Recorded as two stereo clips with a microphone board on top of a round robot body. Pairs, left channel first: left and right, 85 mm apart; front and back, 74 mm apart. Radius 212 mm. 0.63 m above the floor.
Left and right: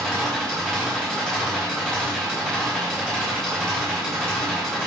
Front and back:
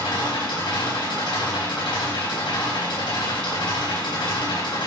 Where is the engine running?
5° left, 5 m.